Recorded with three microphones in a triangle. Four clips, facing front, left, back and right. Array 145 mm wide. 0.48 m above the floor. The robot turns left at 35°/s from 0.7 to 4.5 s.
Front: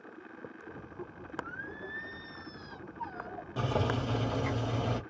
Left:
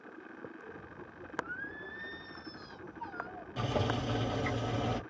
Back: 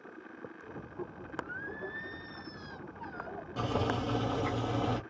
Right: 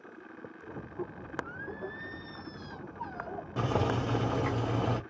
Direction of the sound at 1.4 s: Straight ahead.